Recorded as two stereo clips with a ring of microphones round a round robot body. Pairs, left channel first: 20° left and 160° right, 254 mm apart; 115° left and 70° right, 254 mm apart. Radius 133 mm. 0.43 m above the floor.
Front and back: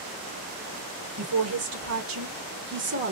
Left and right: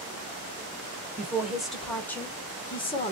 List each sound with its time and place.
1.2 s a woman speaking: 150° right, 2 m; by 3.1 s 170° left, 1.6 m